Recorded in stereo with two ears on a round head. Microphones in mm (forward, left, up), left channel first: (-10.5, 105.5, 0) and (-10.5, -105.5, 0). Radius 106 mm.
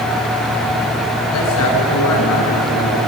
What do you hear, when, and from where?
1.3 s a man speaking: 65° left (ahead or behind), 7.5 m